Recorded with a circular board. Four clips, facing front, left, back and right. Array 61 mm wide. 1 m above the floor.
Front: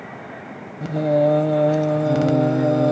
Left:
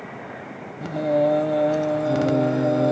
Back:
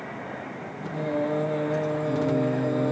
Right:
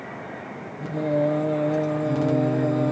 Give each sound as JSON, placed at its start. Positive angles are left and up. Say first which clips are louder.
{"t": 0.8, "sound": "singing", "louder": "left 3 dB, front 10 dB", "azimuth_deg": 35, "distance_m": 0.6}